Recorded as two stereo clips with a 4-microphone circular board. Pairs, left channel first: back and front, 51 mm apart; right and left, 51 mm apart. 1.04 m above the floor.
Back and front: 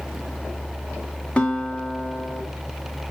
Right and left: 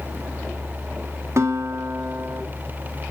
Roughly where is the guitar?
Left.